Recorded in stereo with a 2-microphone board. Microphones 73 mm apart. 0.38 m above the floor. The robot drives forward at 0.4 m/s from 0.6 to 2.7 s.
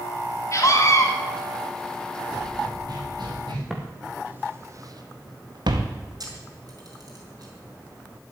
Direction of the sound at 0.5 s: 45° left (ahead or behind).